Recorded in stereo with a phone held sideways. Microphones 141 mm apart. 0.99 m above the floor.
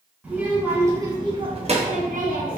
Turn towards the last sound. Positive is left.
turn(degrees=-80)